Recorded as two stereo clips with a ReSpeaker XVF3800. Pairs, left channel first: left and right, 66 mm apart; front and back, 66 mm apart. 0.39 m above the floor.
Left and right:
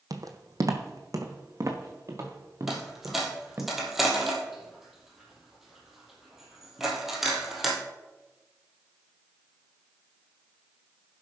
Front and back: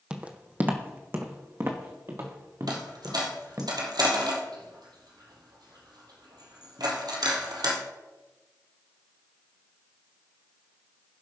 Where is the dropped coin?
175° right, 1.9 m.